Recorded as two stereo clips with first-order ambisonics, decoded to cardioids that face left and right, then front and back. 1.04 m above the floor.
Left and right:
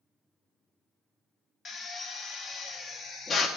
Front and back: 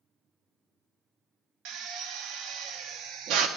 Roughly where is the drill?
Behind left.